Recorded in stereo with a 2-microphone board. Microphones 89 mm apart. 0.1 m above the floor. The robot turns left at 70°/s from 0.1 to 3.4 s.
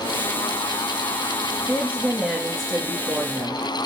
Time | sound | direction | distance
1.7 | a woman speaking | 20° right (ahead or behind) | 1.2 m